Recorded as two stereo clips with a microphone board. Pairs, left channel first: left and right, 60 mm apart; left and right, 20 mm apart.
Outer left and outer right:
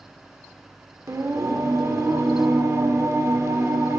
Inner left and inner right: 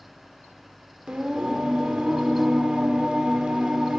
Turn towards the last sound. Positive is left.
turn(degrees=-55)  # may be behind; listen again after turning